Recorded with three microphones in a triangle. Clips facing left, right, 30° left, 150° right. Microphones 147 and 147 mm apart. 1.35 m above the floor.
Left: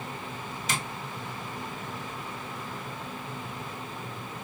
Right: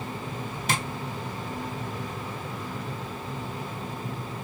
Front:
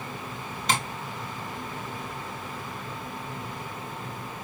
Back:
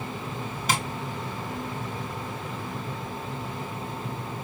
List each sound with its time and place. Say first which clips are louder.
0.7 s tapping: right 5 dB, even; 65° right, 1.8 m